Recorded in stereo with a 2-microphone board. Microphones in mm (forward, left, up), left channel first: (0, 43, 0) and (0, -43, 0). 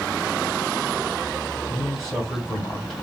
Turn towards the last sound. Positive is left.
turn(degrees=0)  # may be behind; listen again after turning